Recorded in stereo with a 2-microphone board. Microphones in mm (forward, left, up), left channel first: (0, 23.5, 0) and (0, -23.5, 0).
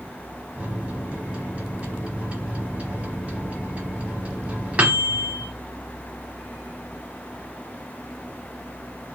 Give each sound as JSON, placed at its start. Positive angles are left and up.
{"t": 0.6, "sound": "a microwave", "side_deg": -30, "distance_m": 1.1}